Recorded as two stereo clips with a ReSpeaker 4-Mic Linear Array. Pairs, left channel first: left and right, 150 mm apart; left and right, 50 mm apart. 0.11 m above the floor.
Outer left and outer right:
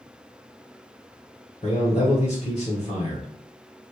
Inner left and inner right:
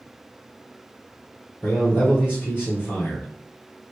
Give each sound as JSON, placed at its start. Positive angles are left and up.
{"t": 1.6, "sound": "a man speaking", "side_deg": 40, "distance_m": 1.3}